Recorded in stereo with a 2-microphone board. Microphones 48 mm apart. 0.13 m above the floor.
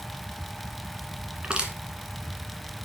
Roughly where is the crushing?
Centre.